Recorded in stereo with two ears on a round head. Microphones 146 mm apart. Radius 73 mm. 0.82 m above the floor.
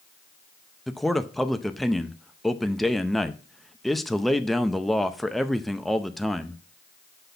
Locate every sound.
0.9 s a man speaking: centre (ahead or behind), 0.5 m